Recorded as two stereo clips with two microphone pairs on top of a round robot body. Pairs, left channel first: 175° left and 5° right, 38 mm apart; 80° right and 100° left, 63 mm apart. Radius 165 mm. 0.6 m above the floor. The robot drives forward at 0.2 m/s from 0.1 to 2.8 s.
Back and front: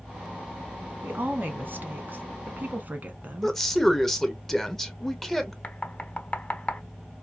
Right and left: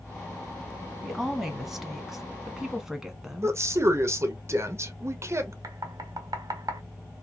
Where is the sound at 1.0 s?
Straight ahead, 1.4 m.